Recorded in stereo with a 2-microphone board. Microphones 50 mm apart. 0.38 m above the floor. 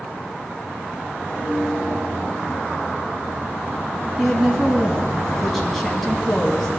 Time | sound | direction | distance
1.3 | a piano | 45° right (ahead or behind) | 5 m
4.2 | a woman speaking | centre (ahead or behind) | 3 m